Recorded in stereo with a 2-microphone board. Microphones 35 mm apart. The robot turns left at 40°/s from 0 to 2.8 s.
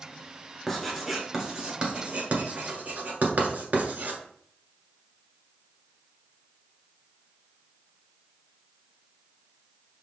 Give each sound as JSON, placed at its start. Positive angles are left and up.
{"t": 0.7, "sound": "writing", "side_deg": 10, "distance_m": 1.2}